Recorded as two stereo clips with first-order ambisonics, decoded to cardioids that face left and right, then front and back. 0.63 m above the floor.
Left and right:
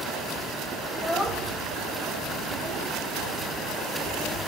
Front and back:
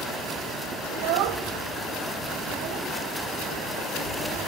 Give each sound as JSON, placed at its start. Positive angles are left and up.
{"t": 0.9, "sound": "a child speaking", "azimuth_deg": 175, "distance_m": 2.0}